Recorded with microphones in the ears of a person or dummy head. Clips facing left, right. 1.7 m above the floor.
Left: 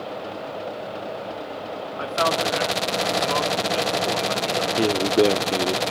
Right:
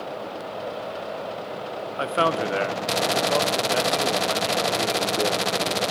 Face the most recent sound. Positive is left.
turn(degrees=50)  # may be behind; listen again after turning